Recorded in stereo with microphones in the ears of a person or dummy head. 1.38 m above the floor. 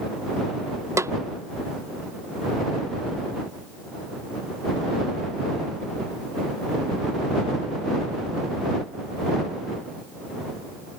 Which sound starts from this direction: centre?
A snare drum, at 1.0 s.